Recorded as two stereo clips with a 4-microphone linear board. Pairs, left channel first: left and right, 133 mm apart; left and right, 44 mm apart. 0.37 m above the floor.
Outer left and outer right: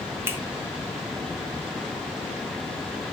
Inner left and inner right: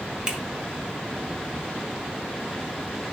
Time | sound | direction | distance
0.3 | a finger snap | 20° right (ahead or behind) | 1.7 m